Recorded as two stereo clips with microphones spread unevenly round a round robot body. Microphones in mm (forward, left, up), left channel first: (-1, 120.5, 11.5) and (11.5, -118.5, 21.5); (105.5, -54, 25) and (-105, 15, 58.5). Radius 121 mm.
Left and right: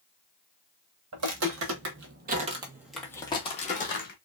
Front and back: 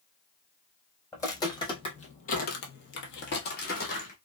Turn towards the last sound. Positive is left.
turn(degrees=45)